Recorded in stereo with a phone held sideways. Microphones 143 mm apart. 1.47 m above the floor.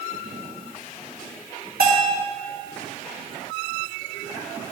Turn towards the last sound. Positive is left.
turn(degrees=-85)